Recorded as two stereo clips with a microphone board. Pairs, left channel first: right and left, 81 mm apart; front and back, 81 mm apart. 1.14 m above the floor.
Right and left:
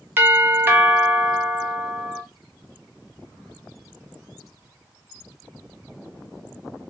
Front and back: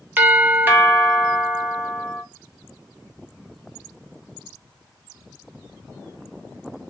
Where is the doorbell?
130° left, 0.6 m.